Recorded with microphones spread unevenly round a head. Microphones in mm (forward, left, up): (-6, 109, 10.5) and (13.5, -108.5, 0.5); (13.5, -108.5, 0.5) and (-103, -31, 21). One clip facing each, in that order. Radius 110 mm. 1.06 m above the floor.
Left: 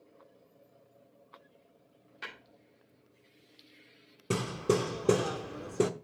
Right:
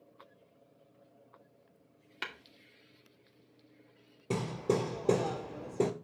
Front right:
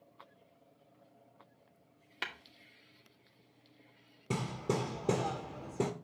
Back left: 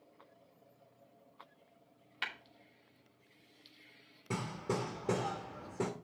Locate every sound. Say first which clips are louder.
2.2 s tapping: right 2 dB, front right 1 dB; 75° right, 2 m
4.3 s hammering: left 2 dB, front right 3 dB; 35° left, 0.8 m